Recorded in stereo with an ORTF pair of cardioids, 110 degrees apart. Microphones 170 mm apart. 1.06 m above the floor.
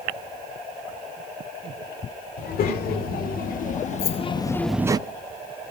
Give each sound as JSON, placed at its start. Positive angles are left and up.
{"t": 2.4, "sound": "a child speaking", "azimuth_deg": 65, "distance_m": 2.5}
{"t": 4.0, "sound": "keys jangling", "azimuth_deg": 65, "distance_m": 2.0}